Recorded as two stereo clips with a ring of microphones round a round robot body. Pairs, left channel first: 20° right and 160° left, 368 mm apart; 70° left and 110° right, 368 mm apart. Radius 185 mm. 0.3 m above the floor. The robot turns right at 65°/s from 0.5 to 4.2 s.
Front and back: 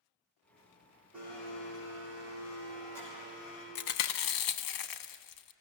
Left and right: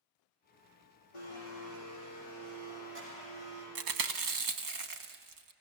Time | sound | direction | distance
1.1 | a blender | 70° left | 9.5 m
3.8 | chewing | 90° right | 1.0 m